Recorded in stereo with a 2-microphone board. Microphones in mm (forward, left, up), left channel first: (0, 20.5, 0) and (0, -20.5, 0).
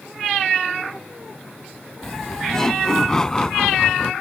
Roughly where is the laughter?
Centre.